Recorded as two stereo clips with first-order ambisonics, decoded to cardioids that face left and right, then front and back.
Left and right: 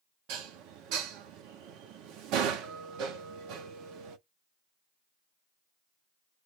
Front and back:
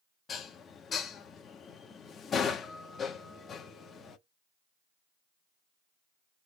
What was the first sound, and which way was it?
Dishes clattering, 65° right.